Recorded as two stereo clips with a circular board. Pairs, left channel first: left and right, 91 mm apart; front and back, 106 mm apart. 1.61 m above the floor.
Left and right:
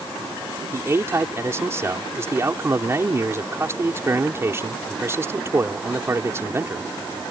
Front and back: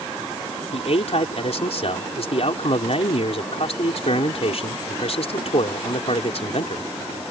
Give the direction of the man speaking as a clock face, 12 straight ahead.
1 o'clock.